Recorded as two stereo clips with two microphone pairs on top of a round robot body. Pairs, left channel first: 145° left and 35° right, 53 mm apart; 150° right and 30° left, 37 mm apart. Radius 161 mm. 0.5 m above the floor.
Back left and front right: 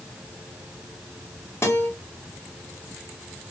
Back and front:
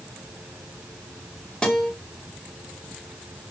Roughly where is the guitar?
Behind left.